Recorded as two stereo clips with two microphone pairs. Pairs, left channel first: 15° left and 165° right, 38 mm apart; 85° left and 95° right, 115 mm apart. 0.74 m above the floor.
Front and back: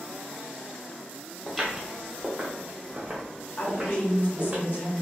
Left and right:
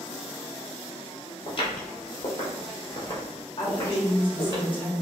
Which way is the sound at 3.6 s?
40° left.